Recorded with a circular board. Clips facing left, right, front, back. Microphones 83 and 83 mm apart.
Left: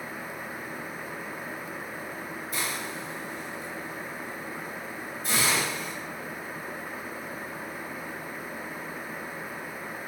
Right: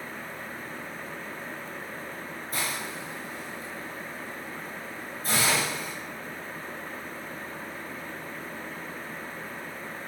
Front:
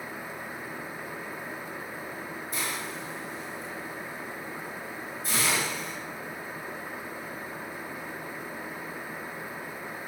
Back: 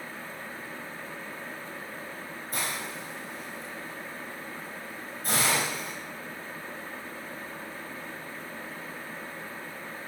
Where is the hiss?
140° right, 9 m.